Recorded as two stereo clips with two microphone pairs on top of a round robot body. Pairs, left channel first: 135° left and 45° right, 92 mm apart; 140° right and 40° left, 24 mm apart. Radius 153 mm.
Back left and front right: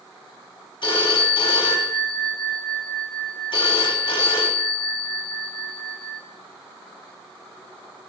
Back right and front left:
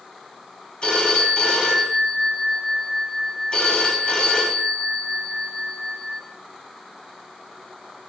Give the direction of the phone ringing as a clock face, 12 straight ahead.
6 o'clock.